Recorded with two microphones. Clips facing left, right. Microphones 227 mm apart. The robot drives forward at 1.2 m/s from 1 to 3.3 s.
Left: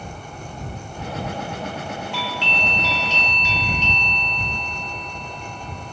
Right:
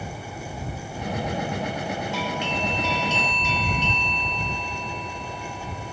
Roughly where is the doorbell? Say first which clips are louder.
Right 2 dB; right.